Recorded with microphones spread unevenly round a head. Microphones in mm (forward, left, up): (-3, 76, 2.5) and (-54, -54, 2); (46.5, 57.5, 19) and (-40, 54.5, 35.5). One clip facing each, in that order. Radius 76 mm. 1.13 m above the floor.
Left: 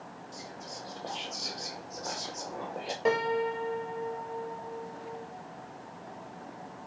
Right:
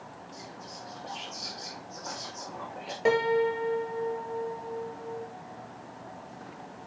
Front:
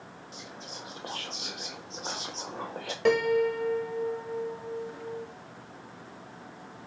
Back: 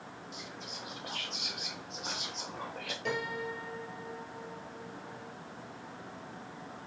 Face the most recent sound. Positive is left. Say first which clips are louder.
# right 4 dB, front 13 dB
turn(degrees=-30)